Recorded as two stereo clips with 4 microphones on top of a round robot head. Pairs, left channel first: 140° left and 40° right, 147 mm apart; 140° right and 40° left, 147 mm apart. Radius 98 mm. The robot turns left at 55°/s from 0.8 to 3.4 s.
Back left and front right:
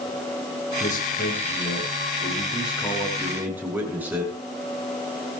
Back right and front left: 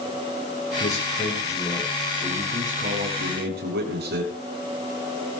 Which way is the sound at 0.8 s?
175° right.